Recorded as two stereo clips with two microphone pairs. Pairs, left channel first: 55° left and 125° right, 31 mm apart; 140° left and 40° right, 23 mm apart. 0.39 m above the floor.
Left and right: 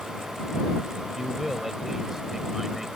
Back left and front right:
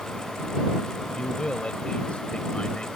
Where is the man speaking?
160° left.